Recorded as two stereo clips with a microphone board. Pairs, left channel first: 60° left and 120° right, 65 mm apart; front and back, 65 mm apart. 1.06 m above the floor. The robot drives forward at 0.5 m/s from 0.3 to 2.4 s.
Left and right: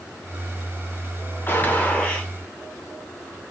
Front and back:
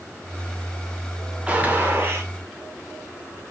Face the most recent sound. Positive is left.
turn(degrees=140)